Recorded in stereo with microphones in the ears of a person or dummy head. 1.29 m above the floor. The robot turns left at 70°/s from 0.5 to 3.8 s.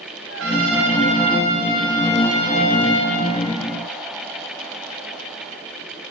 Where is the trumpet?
95° right, 1.3 m; by 3.2 s 80° left, 1.3 m.